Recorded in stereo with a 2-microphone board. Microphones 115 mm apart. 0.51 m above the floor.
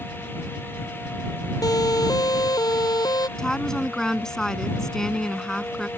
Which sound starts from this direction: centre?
A woman speaking, at 3.4 s.